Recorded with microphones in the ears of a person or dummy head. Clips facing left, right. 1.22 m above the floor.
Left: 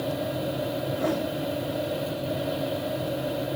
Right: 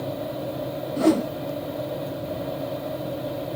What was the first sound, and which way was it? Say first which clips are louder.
A whoosh: right 9 dB; 45° right (ahead or behind).